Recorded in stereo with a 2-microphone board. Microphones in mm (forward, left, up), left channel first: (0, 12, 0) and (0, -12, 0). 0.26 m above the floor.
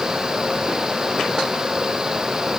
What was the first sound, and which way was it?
Only background noise.